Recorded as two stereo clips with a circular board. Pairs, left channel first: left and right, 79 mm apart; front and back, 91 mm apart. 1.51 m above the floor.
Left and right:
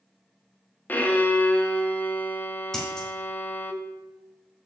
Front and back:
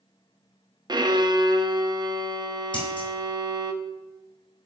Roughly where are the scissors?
Ahead.